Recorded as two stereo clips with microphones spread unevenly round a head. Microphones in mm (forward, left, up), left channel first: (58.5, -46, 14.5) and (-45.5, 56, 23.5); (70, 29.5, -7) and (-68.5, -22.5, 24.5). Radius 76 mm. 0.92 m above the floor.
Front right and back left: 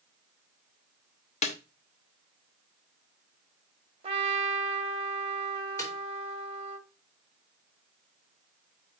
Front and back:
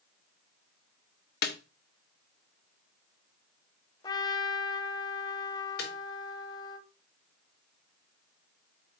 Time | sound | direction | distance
1.4 | a snare drum | straight ahead | 1.1 m
4.0 | a trumpet | 90° left | 1.1 m
5.8 | a snare drum | 25° left | 4 m